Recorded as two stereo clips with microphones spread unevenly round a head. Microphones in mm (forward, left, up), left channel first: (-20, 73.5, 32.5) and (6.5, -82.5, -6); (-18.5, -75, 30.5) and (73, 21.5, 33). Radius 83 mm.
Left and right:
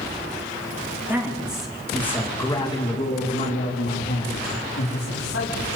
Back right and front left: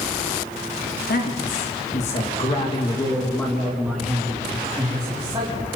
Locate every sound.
1.1 s a man speaking: 160° right, 3.5 m; by 5.7 s 110° left, 5 m